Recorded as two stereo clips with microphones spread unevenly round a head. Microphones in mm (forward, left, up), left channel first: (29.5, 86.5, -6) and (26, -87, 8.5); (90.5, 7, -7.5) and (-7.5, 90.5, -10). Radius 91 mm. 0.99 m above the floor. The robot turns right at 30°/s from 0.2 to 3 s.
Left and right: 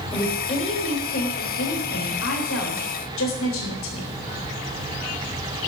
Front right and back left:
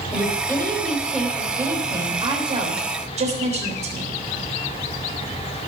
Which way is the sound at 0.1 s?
25° left.